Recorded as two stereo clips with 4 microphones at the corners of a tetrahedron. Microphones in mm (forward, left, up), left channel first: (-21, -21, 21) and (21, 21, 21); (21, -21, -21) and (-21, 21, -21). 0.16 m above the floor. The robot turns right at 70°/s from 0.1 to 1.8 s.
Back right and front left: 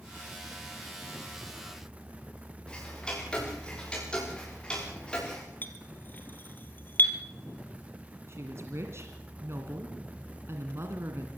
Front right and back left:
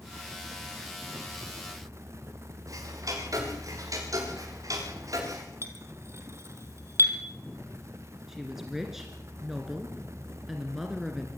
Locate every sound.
2.7 s ticking: 150° left, 7.5 m
5.6 s a clink: 170° left, 2.5 m
8.3 s a woman speaking: 50° left, 2 m